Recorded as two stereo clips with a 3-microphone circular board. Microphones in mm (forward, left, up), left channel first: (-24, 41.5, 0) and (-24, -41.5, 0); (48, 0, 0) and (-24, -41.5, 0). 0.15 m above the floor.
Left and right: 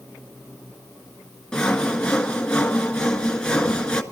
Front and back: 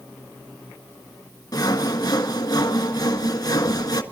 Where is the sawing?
10° left, 1.6 m.